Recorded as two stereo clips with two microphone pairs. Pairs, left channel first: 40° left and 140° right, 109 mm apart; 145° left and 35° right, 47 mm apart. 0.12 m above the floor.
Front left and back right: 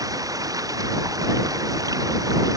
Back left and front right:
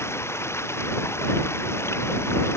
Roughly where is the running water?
Behind.